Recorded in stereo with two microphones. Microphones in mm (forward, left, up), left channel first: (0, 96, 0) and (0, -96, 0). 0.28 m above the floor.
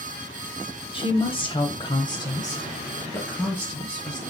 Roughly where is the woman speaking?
Left.